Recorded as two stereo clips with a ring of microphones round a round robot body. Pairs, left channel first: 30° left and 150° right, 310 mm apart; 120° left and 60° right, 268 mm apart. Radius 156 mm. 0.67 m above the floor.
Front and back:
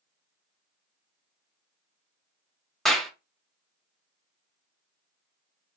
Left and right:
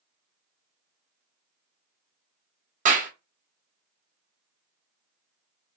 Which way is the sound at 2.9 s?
60° right.